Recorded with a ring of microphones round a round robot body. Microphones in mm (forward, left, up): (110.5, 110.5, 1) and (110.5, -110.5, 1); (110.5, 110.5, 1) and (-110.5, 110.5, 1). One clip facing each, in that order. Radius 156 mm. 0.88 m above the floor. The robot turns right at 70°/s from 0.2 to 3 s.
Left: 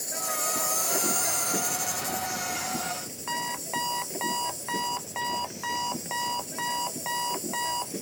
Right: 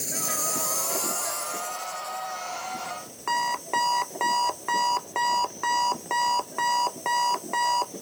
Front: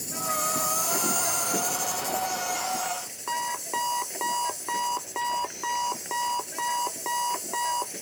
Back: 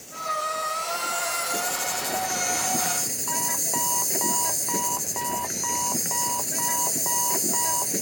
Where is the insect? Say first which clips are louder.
Right 2 dB, front 1 dB; 40° right; by 8.0 s 155° left.